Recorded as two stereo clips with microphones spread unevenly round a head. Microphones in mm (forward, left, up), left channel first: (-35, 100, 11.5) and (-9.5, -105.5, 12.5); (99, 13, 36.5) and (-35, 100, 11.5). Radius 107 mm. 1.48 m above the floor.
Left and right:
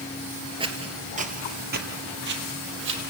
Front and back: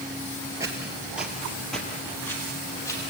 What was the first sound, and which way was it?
Footsteps, 135° right.